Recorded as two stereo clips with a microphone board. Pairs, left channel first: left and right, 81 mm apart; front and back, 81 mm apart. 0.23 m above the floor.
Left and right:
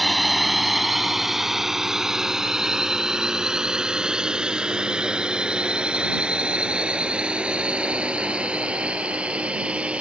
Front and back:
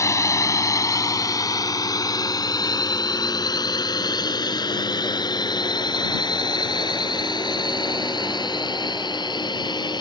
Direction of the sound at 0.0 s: Straight ahead.